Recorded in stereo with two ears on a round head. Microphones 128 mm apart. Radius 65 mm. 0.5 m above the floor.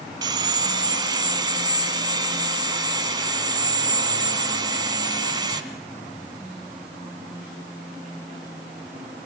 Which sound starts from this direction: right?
Sawing, at 0.2 s.